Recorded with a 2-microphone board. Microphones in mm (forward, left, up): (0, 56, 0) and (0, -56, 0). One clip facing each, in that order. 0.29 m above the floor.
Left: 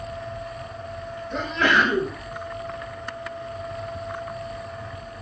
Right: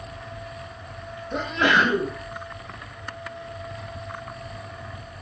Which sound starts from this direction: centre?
A sneeze, at 1.3 s.